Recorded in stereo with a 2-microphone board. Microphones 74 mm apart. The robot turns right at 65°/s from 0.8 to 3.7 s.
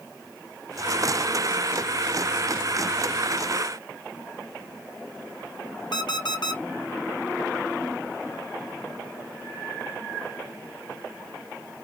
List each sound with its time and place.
5.9 s an alarm clock: 70° left (ahead or behind), 1.6 m